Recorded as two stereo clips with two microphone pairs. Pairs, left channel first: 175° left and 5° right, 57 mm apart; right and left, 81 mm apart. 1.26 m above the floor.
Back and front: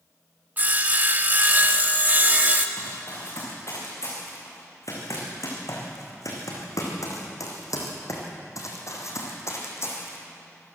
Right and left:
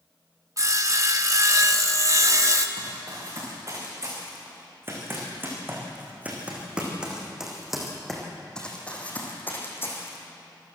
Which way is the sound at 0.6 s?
50° left.